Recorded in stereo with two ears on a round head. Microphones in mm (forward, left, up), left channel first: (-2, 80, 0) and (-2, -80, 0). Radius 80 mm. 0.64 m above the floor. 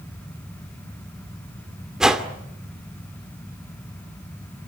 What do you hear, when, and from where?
2.0 s a whoosh: 5° right (ahead or behind), 2 m